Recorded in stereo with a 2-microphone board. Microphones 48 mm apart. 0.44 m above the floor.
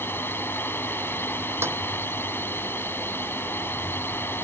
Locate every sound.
0.0 s a drone: 50° left (ahead or behind)
1.6 s a snare drum: 60° right (ahead or behind)